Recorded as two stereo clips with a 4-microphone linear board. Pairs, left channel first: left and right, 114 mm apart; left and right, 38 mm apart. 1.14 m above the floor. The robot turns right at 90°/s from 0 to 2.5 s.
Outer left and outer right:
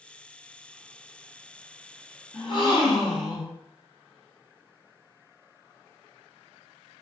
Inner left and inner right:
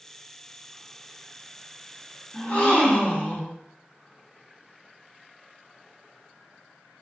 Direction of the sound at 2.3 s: 25° left (ahead or behind).